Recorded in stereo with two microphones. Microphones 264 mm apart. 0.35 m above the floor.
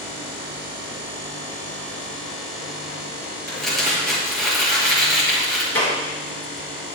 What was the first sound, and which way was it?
Crumpling, centre (ahead or behind).